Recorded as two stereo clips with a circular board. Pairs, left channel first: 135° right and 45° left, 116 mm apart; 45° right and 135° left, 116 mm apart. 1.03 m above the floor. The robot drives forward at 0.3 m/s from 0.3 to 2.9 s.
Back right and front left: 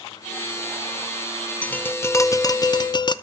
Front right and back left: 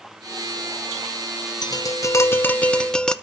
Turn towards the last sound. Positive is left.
turn(degrees=-125)